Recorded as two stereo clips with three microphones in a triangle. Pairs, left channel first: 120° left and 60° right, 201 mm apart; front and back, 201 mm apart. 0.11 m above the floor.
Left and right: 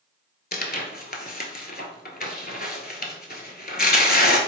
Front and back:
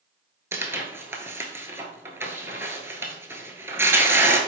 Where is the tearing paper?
105° left, 0.7 m.